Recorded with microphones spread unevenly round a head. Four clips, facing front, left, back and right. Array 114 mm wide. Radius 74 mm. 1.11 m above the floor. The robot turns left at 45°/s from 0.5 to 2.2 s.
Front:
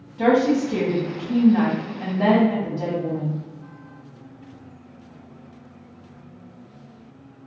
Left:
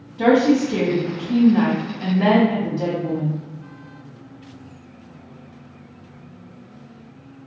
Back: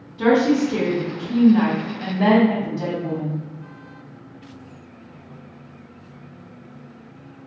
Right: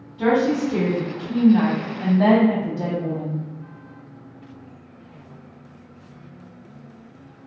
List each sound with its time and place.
0.2 s a woman speaking: 25° left, 1.2 m; by 3.4 s 55° right, 1.2 m